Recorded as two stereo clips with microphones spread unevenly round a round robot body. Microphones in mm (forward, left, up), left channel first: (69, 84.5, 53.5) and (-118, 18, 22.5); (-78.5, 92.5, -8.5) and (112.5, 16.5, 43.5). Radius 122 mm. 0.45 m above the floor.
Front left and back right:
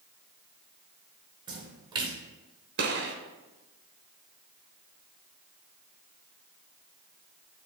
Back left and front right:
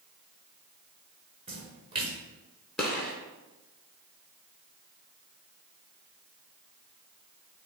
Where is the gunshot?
110° right, 0.7 m.